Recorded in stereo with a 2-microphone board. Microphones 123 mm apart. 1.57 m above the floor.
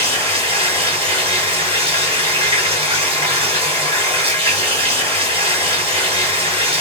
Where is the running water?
45° right (ahead or behind), 2 m.